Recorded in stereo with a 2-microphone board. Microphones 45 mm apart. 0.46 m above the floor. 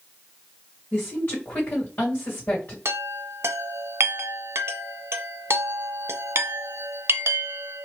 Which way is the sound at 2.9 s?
70° right (ahead or behind).